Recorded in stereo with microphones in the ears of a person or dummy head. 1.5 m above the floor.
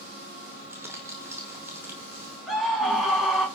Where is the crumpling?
15° right (ahead or behind), 5 m.